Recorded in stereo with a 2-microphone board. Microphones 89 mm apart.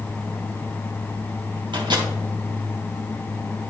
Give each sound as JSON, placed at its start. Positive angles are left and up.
{"t": 1.7, "sound": "a microwave", "side_deg": -60, "distance_m": 2.5}